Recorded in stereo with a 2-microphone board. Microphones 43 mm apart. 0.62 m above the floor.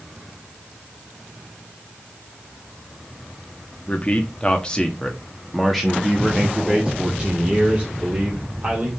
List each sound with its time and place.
3.9 s a man speaking: 35° left (ahead or behind), 1.2 m; by 9.0 s 30° right (ahead or behind), 2.5 m